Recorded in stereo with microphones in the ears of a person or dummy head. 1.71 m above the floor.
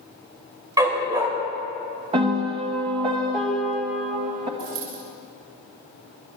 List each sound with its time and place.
0.8 s a dog barking: 20° right (ahead or behind), 2 m
2.1 s a piano: 35° right (ahead or behind), 1.6 m
4.6 s a dropped coin: 55° right (ahead or behind), 4.5 m